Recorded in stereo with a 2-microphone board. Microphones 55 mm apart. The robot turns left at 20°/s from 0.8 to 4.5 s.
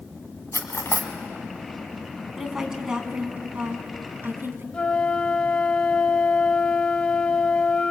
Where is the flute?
20° left (ahead or behind), 0.9 m.